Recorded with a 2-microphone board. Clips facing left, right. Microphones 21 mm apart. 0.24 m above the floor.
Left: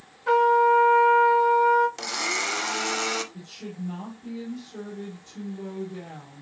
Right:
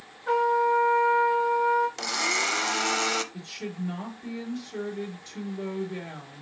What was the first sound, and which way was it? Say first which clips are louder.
A trumpet: left 4 dB; 25° left (ahead or behind).